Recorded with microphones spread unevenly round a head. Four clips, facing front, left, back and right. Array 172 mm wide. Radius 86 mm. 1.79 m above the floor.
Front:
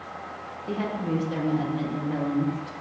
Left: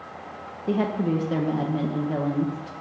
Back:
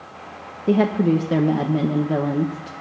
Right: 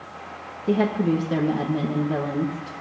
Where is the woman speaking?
160° right, 1.7 m.